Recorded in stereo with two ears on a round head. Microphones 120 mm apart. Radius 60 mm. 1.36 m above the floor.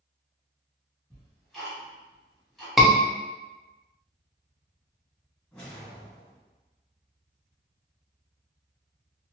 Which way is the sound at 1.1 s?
Centre (ahead or behind).